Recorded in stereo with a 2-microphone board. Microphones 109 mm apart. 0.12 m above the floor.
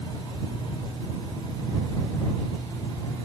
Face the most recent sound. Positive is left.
No sound to turn to.